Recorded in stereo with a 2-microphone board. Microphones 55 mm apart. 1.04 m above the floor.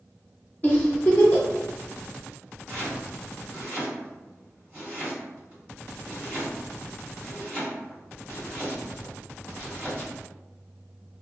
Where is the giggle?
30° left (ahead or behind), 0.8 m.